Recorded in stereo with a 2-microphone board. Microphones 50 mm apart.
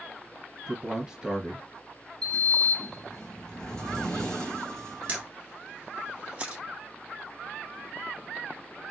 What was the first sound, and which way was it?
A man speaking, 15° right (ahead or behind).